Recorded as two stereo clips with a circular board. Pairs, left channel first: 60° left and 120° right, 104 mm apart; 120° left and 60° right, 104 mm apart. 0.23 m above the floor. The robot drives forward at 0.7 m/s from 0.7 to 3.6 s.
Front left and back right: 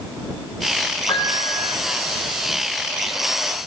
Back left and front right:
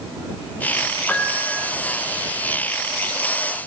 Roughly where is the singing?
No singing in this recording.